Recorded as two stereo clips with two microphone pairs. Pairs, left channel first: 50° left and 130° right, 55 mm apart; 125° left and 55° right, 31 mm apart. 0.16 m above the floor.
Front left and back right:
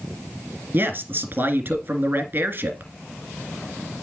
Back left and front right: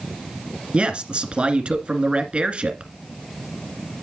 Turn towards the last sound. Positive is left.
turn(degrees=-90)